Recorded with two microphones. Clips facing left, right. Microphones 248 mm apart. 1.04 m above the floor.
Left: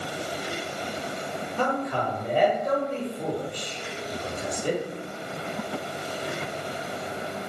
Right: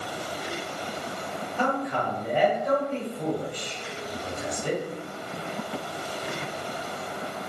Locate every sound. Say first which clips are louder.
1.6 s a man speaking: even; 40° left (ahead or behind), 1.5 m